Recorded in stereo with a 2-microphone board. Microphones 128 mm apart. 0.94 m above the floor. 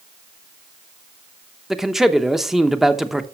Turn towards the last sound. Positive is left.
turn(degrees=-5)  # may be behind; listen again after turning